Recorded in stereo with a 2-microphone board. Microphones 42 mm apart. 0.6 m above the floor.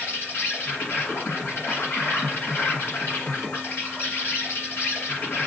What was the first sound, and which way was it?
An insect, 60° left (ahead or behind).